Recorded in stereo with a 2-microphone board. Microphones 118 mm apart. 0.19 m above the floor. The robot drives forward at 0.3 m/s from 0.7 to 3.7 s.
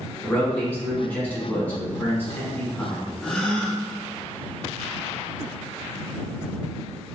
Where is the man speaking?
10° left (ahead or behind), 1.5 m; by 3.1 s 15° left (ahead or behind), 1.2 m.